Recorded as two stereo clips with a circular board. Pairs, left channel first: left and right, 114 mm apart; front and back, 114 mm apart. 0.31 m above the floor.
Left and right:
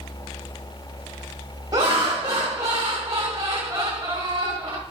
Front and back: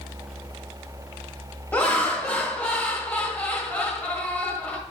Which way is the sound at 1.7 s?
65° right.